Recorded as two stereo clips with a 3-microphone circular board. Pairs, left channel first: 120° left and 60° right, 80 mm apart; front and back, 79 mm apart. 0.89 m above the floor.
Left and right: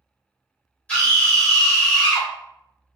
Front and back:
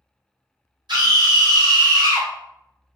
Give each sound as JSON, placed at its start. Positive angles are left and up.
{"t": 0.9, "sound": "a scream", "azimuth_deg": -170, "distance_m": 1.6}